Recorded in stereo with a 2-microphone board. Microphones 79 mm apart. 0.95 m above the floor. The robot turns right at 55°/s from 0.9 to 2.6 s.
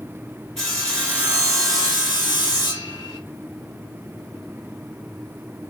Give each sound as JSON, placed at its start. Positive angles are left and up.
{"t": 0.6, "sound": "sawing", "azimuth_deg": 10, "distance_m": 1.4}